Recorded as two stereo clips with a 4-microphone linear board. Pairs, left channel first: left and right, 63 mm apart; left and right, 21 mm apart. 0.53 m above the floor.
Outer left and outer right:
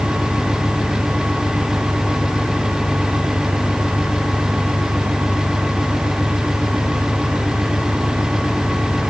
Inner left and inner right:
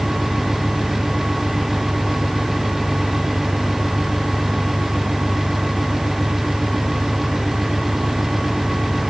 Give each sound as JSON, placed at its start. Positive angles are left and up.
{"t": 0.0, "sound": "an engine running", "side_deg": 65}